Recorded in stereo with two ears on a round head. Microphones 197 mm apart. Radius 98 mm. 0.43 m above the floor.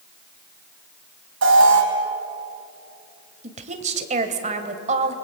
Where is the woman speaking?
35° right (ahead or behind), 2 m.